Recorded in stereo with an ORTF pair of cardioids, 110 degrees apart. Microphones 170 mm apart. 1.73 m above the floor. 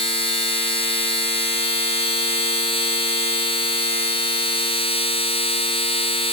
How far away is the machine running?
About 1.0 m.